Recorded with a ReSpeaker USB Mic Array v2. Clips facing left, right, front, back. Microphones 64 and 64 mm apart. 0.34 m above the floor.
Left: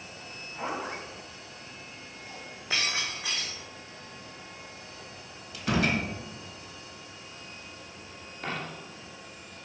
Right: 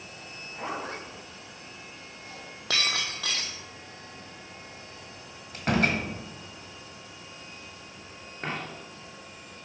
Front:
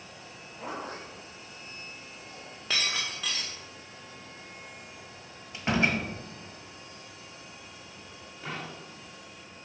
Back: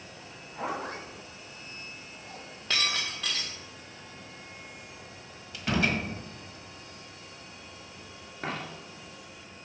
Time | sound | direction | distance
0.3 | a zipper | straight behind | 2.0 m
2.7 | breaking glass | 85° right | 1.8 m
5.5 | a door slam | 60° right | 1.5 m
8.4 | a dropped coin | 145° right | 1.9 m